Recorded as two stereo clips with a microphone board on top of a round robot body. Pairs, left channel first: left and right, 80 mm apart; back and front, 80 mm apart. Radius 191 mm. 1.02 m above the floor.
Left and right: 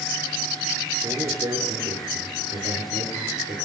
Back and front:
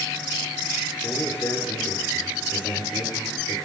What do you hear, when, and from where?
1.0 s a man speaking: 120° right, 5 m